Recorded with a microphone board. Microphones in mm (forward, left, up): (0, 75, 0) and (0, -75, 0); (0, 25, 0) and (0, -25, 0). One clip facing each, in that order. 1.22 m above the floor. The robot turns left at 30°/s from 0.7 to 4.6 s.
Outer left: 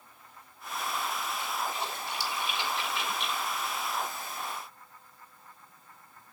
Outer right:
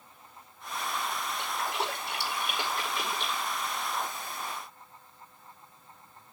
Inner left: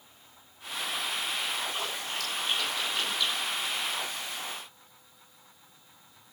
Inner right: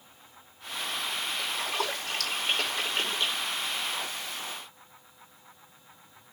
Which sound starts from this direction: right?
A splash, at 1.4 s.